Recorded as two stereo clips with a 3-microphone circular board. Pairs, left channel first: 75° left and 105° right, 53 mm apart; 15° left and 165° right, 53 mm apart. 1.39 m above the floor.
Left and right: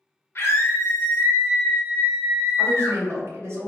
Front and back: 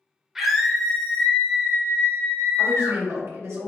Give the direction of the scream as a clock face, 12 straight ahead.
8 o'clock.